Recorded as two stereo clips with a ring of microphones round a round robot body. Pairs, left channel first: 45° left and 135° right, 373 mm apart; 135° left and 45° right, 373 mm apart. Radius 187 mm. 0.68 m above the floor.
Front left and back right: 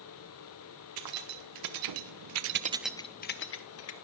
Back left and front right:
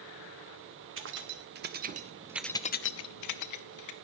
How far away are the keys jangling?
About 1.9 m.